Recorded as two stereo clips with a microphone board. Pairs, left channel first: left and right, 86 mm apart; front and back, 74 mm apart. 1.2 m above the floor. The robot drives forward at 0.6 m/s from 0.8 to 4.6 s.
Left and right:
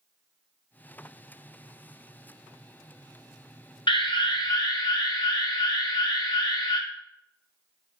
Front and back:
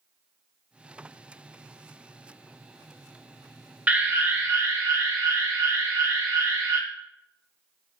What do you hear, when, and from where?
3.9 s an alarm: 110° left, 1.0 m; by 6.8 s 130° left, 1.2 m